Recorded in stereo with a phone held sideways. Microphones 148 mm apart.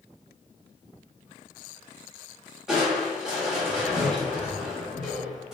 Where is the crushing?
5° right (ahead or behind), 1.4 m.